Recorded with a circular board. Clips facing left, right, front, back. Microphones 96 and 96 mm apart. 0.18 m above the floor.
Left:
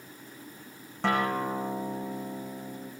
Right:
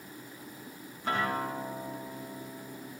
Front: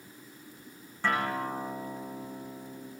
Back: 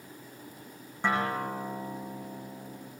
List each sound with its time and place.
1.0 s a guitar: 110° left, 9.5 m